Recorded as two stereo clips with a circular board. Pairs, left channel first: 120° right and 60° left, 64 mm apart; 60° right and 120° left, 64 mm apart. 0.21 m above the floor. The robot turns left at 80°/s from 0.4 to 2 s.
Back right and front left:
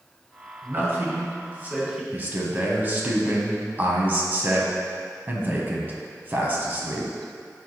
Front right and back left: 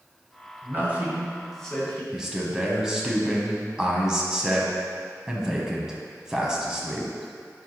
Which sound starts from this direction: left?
A man speaking, at 0.6 s.